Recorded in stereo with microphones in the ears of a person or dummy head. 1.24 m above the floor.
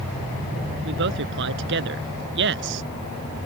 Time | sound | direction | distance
0.8 | a man speaking | 65° right (ahead or behind) | ?